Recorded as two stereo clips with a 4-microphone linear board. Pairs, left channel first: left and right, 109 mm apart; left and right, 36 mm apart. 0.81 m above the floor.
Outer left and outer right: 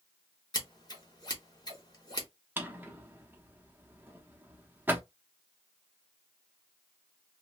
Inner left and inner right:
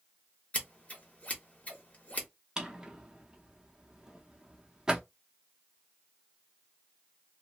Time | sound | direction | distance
0.5 | scissors | 35° left (ahead or behind) | 1.2 m
2.6 | a drawer | 20° right (ahead or behind) | 0.6 m